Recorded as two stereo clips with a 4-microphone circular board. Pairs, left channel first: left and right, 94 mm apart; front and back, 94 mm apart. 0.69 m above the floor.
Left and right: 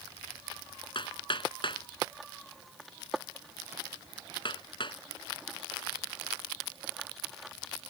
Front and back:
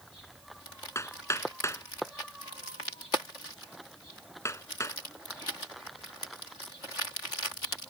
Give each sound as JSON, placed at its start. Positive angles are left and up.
{"t": 0.9, "sound": "hammering", "azimuth_deg": 60}